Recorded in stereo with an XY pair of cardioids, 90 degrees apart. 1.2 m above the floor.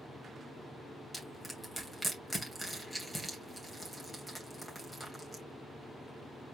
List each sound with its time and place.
1.1 s crushing: 5° right, 2.5 m